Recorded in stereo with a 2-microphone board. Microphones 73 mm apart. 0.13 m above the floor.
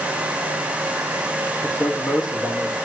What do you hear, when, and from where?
1.6 s a man speaking: 65° left (ahead or behind), 6 m